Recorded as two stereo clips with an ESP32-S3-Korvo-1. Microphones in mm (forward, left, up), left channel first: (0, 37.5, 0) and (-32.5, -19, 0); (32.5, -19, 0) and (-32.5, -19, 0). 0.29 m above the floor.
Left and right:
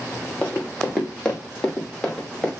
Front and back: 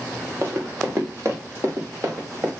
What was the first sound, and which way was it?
Running footsteps, 130° left.